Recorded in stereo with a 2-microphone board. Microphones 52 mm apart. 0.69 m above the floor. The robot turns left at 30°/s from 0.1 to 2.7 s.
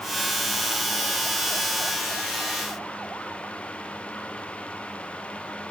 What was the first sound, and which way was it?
Only background noise.